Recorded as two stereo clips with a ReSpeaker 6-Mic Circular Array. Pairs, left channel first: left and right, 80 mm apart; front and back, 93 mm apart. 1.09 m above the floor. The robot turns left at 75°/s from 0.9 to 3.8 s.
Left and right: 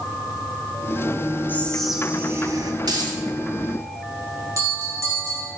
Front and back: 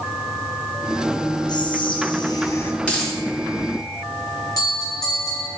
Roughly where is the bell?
Ahead right.